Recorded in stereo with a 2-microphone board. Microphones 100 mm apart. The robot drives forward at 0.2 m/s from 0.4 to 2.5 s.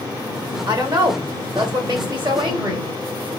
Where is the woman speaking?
50° right (ahead or behind), 1.9 m; by 2.9 s 55° right (ahead or behind), 1.7 m.